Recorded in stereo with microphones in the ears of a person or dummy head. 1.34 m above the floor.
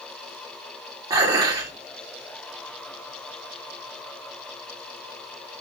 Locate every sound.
1.1 s dishes clattering: 20° right (ahead or behind), 2 m